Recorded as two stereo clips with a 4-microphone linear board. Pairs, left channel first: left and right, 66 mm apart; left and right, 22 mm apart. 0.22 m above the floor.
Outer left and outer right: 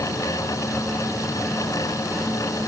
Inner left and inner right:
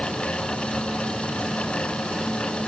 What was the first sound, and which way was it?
Only background noise.